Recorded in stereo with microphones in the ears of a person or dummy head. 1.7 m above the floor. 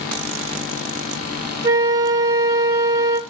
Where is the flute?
25° right (ahead or behind), 2.0 m.